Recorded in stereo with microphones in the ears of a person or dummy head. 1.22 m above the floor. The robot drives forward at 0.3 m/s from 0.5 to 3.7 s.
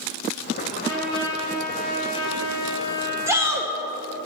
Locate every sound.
0.7 s a trumpet: 60° right (ahead or behind), 2.5 m; by 3.6 s 45° right (ahead or behind), 3 m
3.3 s a shout: 10° right (ahead or behind), 0.8 m